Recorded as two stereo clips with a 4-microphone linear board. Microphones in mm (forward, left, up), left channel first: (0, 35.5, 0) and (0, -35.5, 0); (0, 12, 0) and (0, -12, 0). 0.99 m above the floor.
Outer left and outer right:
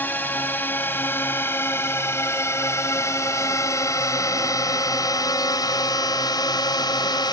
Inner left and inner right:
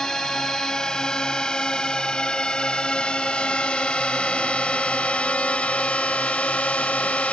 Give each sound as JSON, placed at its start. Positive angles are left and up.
{"t": 0.0, "sound": "a drone", "side_deg": 25}